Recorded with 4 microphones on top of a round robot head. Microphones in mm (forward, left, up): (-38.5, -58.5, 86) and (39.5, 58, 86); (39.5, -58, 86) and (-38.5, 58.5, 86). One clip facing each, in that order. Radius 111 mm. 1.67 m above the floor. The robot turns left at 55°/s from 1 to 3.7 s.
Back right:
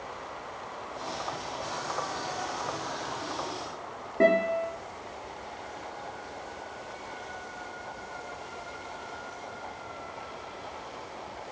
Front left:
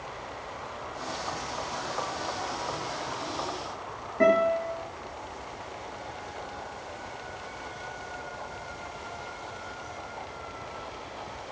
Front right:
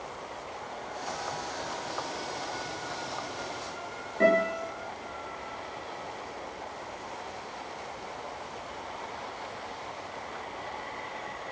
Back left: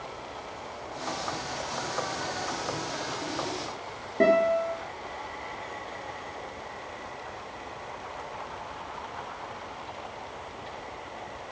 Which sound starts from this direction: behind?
A guitar, at 4.2 s.